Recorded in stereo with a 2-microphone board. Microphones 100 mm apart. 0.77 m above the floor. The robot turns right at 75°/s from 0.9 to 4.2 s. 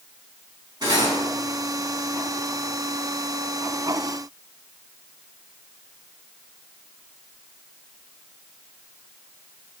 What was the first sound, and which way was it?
Cutlery clinking, 45° right (ahead or behind).